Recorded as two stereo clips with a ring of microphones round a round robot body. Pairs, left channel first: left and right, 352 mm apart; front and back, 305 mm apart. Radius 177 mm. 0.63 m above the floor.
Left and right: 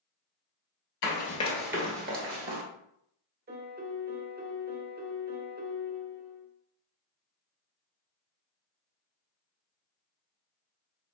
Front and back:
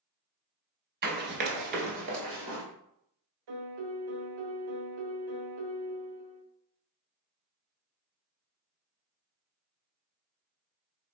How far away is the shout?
No shout in this recording.